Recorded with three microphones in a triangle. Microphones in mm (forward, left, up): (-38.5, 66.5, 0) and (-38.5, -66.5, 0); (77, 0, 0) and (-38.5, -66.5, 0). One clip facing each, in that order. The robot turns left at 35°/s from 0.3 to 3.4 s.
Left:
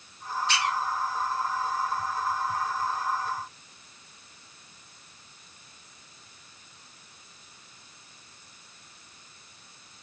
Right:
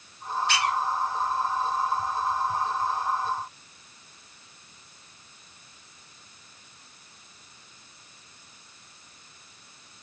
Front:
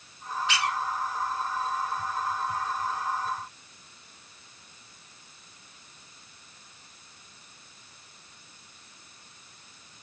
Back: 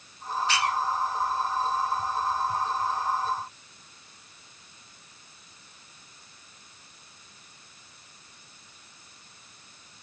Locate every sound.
0.5 s a squeak: 100° right, 1.5 m; by 0.8 s 110° right, 1.5 m